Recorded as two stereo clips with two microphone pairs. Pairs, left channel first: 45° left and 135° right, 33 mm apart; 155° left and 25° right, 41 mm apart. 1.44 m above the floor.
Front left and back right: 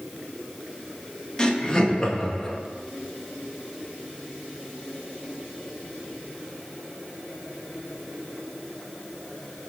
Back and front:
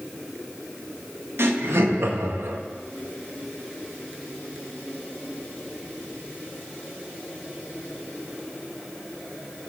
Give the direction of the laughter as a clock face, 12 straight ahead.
1 o'clock.